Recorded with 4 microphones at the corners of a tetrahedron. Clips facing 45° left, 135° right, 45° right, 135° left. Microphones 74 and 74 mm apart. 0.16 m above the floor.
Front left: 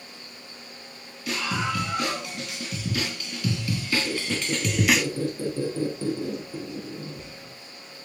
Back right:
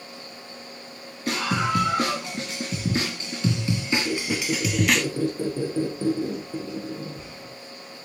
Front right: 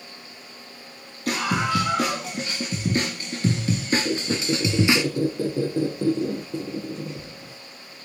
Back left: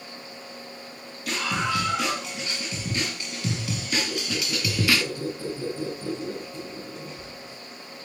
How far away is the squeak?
About 7 m.